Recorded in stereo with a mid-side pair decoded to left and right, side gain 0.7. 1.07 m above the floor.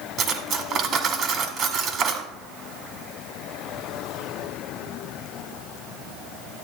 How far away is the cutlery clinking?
About 1.8 m.